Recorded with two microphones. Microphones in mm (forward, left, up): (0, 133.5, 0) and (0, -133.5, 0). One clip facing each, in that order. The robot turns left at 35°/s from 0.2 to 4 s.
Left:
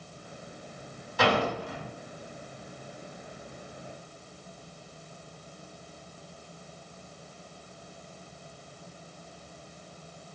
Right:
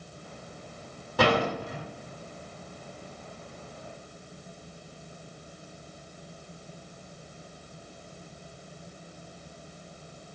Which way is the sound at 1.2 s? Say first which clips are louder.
Right 2 dB; 70° right (ahead or behind).